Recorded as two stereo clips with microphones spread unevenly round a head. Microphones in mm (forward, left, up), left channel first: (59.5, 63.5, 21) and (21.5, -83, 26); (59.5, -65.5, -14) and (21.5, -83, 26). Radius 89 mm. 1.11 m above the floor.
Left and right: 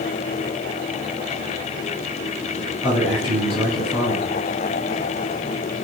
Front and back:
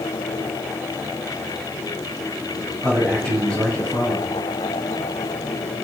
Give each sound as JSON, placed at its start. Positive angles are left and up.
{"t": 2.8, "sound": "a man speaking", "azimuth_deg": 140, "distance_m": 7.5}